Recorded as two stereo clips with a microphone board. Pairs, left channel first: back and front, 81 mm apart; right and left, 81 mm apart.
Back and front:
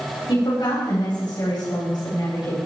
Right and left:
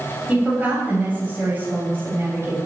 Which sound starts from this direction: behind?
A woman speaking, at 0.3 s.